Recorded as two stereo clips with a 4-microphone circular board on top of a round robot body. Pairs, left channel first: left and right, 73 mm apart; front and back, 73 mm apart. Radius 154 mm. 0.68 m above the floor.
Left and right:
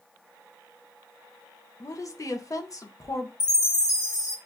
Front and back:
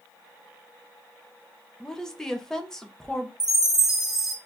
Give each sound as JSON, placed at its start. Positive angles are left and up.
{"t": 1.8, "sound": "a woman speaking", "azimuth_deg": 80, "distance_m": 0.9}
{"t": 3.4, "sound": "a chime", "azimuth_deg": 95, "distance_m": 1.6}